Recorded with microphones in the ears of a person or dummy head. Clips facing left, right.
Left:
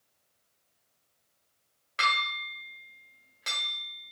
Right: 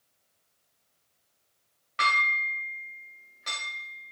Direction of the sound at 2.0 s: 60° left (ahead or behind).